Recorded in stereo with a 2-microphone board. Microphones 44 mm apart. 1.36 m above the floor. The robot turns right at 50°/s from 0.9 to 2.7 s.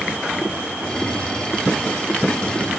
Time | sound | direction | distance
0.8 | tapping | 80° right | 7 m